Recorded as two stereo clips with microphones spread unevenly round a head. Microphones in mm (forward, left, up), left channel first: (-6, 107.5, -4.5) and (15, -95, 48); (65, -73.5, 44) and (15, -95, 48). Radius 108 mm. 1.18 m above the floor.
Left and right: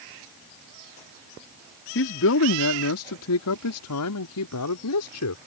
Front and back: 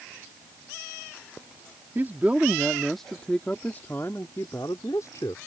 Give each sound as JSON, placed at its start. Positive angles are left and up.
{"t": 1.9, "sound": "a man speaking", "azimuth_deg": 130}